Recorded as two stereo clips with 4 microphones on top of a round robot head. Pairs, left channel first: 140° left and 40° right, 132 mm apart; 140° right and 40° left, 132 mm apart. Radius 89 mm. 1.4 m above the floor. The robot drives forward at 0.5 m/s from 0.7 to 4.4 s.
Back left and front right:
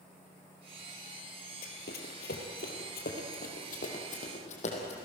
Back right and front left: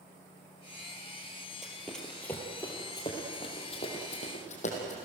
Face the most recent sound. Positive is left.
turn(degrees=180)